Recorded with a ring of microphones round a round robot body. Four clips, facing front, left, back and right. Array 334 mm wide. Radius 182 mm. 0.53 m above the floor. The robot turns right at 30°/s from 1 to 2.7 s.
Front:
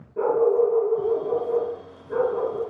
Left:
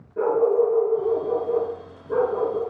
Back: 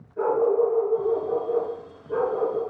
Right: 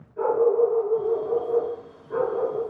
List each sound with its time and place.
0.2 s a dog barking: 50° left, 3 m; by 2.6 s 100° left, 3 m